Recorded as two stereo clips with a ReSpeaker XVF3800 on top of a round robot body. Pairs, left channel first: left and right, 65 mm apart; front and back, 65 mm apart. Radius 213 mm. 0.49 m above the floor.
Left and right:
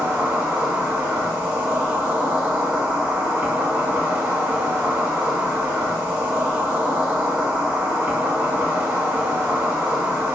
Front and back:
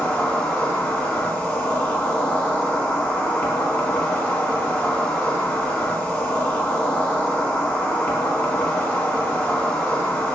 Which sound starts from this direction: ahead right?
An insect, at 0.0 s.